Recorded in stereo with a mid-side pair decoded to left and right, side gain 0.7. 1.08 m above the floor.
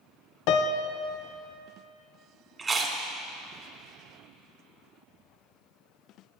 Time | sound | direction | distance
0.5 | a piano | 65° left | 0.5 m
2.6 | chewing | 25° right | 1.4 m